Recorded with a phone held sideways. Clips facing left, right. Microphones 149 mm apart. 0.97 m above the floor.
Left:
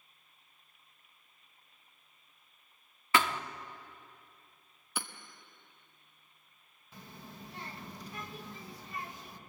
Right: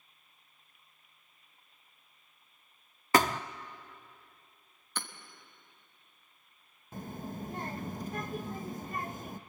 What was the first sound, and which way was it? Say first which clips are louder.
A thud: right 4 dB; 40° right (ahead or behind).